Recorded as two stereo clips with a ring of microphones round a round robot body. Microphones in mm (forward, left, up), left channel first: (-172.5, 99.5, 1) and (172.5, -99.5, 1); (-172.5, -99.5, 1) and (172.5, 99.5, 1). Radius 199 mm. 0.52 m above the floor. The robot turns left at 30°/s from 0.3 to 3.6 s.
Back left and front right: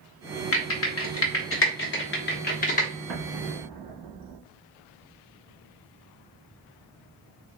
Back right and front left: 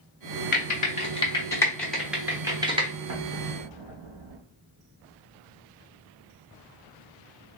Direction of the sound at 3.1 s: 30° left.